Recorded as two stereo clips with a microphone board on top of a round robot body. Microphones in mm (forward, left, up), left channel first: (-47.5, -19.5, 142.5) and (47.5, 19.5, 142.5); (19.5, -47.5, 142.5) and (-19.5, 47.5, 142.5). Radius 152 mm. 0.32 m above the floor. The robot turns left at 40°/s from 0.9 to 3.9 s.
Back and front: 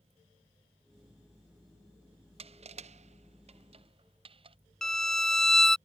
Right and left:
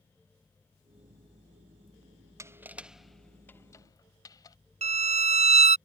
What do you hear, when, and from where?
2.4 s crushing: 50° left; by 4.6 s 10° right
4.8 s a violin: 115° left